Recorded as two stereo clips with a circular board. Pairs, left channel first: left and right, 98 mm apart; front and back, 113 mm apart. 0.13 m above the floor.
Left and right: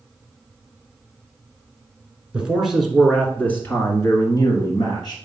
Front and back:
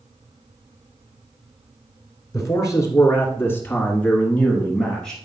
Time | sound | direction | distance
2.3 | a man speaking | 20° right | 1.9 m